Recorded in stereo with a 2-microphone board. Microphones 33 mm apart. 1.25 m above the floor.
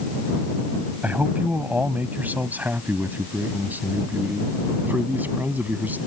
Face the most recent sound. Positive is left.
turn(degrees=-65)  # may be behind; listen again after turning